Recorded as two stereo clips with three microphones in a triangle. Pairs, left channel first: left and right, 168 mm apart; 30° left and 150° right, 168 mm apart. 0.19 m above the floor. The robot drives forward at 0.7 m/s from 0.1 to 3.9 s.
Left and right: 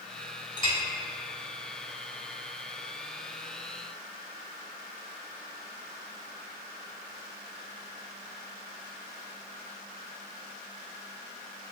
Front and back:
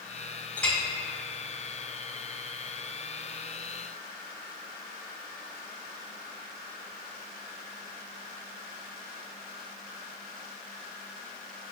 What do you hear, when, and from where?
0.6 s a clink: 100° left, 0.6 m; by 0.8 s 125° left, 0.6 m